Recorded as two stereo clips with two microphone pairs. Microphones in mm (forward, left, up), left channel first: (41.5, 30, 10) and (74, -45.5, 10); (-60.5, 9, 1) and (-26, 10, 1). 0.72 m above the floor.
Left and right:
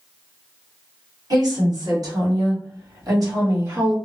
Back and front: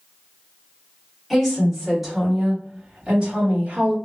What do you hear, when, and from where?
1.3 s a woman speaking: 90° right, 1.7 m; by 4.0 s 30° right, 1.5 m